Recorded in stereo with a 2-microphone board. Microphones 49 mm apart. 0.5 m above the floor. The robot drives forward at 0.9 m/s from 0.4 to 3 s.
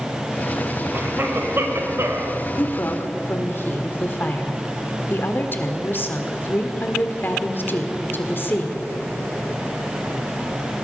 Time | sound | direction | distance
0.9 | a cough | 45° right (ahead or behind) | 3 m
2.6 | a woman speaking | 45° left (ahead or behind) | 1.5 m